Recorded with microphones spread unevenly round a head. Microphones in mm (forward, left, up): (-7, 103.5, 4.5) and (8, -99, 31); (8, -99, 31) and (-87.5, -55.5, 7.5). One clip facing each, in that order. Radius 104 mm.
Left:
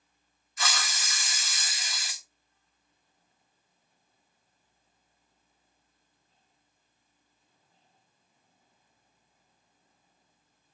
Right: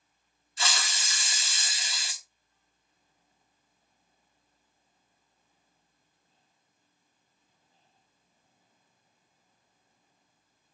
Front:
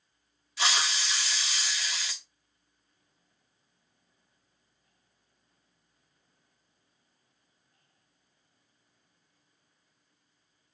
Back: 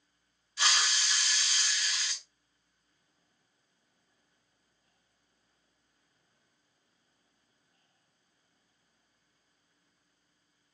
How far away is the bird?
I don't hear a bird.